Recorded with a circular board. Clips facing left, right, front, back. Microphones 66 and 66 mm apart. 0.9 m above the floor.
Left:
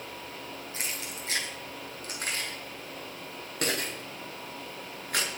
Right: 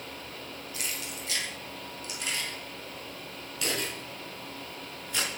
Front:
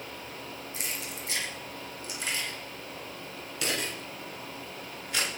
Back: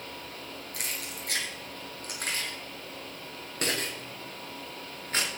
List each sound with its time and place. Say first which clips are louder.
0.7 s keys jangling: right 1 dB, even; 150° left, 6.5 m; by 5.3 s 125° left, 8 m